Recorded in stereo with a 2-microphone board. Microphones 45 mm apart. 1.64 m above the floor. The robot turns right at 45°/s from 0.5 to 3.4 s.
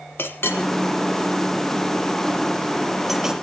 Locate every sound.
0.2 s a clink: 65° left (ahead or behind), 1.4 m; by 3.3 s 15° right (ahead or behind), 1.4 m